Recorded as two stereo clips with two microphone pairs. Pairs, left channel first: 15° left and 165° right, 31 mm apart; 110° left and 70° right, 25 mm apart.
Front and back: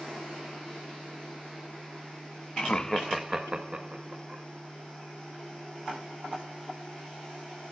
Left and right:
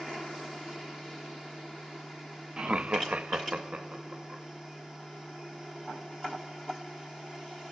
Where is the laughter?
20° right, 0.7 m; by 4.4 s 120° right, 1.9 m.